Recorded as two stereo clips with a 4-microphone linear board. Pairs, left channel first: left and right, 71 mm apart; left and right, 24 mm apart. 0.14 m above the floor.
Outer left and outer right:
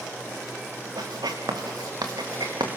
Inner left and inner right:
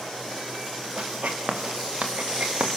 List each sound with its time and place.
1.0 s writing: 70° right (ahead or behind), 3 m